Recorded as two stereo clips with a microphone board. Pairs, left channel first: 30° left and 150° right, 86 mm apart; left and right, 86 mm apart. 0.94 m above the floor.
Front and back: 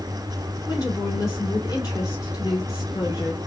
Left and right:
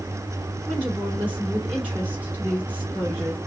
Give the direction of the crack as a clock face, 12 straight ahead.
No crack in this recording.